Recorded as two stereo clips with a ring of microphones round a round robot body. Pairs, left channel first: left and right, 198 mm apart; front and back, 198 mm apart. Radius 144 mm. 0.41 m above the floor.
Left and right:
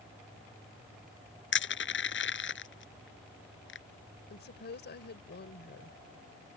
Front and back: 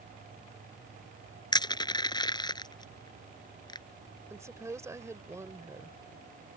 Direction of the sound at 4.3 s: 105° left.